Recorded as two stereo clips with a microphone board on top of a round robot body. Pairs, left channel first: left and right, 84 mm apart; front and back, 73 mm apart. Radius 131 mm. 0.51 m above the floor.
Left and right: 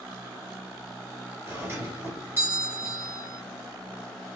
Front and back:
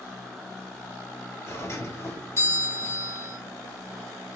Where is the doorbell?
35° right, 2.5 m.